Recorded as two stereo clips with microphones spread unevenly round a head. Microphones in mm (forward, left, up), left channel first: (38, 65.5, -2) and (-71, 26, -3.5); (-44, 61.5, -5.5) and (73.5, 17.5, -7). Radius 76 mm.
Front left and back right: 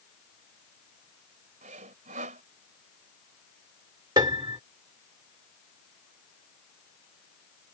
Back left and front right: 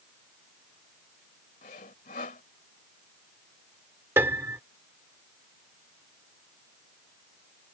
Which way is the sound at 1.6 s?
165° right.